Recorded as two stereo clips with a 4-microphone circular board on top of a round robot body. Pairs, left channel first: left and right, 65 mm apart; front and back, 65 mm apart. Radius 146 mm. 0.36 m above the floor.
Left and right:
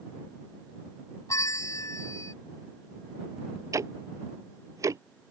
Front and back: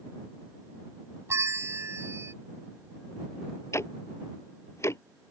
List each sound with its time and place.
1.3 s a bell: 130° left
3.7 s ticking: 50° right